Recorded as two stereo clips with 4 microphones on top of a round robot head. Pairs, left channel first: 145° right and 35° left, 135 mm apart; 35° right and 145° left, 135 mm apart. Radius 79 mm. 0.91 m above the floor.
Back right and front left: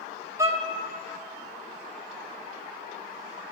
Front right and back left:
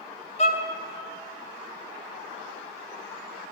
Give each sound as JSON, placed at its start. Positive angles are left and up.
{"t": 0.4, "sound": "a violin", "azimuth_deg": -30, "distance_m": 1.3}